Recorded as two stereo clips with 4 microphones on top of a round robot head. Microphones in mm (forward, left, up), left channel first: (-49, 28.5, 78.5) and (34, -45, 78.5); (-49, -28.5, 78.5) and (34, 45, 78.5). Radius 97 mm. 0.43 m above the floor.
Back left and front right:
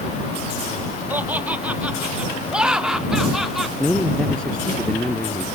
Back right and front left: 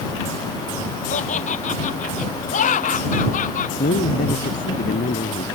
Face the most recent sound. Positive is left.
turn(degrees=-140)